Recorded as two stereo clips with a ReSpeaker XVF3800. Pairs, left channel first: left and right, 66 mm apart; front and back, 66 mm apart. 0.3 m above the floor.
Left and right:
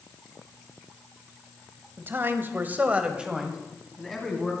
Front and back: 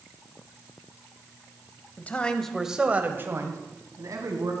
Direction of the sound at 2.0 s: 50° right.